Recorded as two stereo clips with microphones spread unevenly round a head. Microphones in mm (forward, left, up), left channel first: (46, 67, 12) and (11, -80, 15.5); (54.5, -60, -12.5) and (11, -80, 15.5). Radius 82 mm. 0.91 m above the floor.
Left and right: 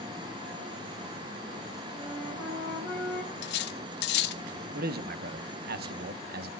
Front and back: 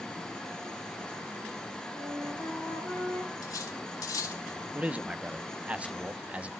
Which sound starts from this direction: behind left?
A flute, at 1.9 s.